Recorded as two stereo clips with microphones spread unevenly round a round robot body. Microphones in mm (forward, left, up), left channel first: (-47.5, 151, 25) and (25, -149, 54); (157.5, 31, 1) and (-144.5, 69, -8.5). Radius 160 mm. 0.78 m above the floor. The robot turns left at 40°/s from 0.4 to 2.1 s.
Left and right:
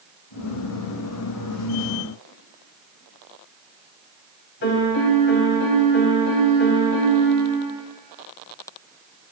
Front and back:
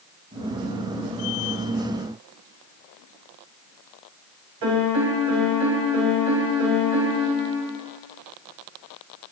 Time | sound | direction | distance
4.6 | a piano | 160° left | 1.7 m